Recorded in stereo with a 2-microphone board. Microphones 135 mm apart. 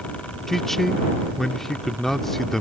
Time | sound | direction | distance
0.5 | a man speaking | centre (ahead or behind) | ?